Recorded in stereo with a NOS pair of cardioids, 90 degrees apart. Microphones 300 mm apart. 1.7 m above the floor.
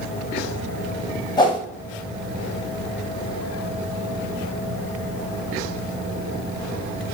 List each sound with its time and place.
1.4 s a whoosh: 15° left, 0.7 m